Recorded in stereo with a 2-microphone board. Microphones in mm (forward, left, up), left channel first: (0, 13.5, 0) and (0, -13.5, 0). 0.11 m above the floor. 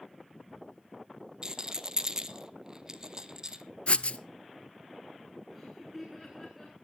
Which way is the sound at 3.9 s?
60° left (ahead or behind).